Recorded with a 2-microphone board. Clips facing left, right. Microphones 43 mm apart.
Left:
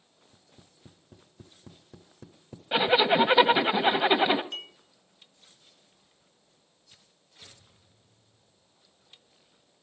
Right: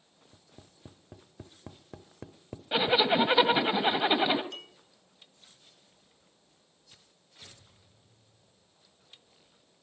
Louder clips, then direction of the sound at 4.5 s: Left 6 dB; 35° left (ahead or behind).